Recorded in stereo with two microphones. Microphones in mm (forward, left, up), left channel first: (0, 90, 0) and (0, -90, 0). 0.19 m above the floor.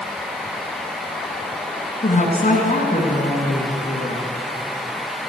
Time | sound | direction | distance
2.0 | a woman speaking | 50° left (ahead or behind) | 2 m